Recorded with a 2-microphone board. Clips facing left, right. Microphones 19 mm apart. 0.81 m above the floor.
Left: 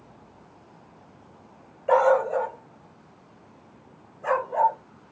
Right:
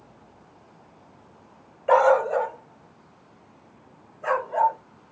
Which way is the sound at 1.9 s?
25° right (ahead or behind).